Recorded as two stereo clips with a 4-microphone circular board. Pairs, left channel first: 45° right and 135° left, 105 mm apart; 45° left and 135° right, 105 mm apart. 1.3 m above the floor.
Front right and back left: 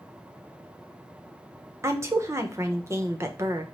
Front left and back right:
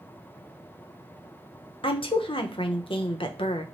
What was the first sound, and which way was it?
A woman speaking, 70° left.